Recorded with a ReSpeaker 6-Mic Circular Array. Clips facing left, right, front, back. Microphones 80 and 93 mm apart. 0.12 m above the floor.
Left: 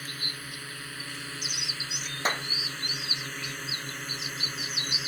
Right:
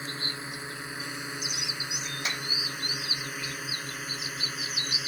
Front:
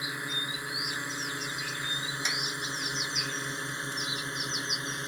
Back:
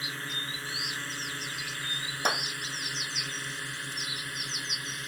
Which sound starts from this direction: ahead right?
A drone, at 0.0 s.